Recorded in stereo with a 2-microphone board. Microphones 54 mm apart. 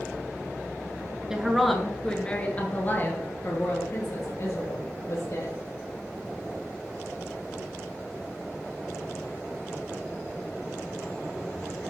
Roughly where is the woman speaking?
Centre.